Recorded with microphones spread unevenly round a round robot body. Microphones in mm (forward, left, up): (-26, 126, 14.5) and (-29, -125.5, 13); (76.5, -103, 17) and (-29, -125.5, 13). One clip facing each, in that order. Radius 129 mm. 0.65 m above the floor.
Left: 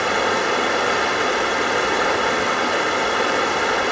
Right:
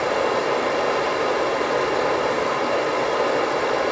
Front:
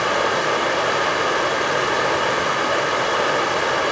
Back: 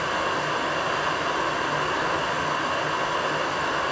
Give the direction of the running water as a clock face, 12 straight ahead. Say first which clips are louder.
Right 1 dB, front 6 dB; 11 o'clock.